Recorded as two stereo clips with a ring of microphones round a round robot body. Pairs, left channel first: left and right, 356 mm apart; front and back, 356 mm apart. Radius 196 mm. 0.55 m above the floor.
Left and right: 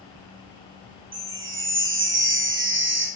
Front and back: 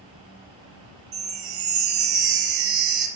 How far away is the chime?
About 1.4 m.